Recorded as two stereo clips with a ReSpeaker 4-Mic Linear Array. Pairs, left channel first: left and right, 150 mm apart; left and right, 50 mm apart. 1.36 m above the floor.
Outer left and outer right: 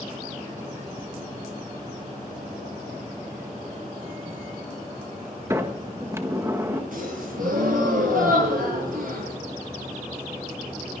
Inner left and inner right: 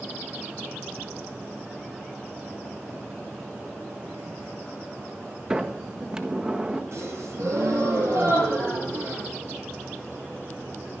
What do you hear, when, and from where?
5.5 s a sliding door: 20° right (ahead or behind), 1.4 m
6.9 s a gasp: 65° right (ahead or behind), 10 m